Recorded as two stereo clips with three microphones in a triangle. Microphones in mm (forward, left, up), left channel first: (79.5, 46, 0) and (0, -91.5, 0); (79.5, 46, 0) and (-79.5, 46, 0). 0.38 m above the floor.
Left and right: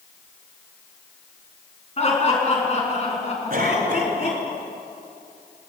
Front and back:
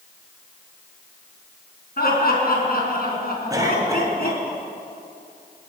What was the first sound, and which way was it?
Laughter, 15° left.